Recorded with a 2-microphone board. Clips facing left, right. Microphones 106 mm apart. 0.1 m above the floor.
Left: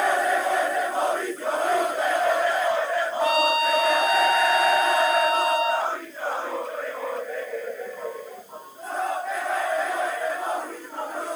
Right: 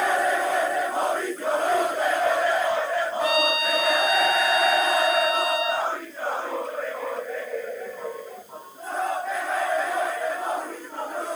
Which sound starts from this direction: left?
A trumpet, at 3.2 s.